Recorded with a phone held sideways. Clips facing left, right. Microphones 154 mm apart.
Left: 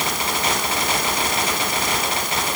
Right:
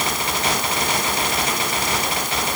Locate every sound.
Only background noise.